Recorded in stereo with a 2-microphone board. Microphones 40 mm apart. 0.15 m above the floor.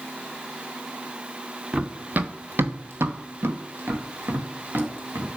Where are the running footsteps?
20° right (ahead or behind), 1.1 m; by 5.4 s 60° right (ahead or behind), 3.5 m.